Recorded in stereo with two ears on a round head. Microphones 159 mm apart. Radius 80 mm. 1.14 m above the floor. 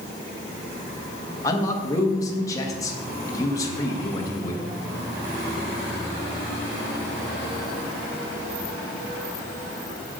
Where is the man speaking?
20° left (ahead or behind), 1.3 m.